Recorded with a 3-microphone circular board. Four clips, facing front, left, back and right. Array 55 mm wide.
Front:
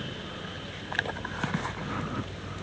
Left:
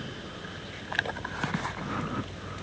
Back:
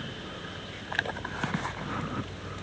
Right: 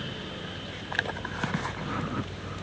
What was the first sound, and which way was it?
Only background noise.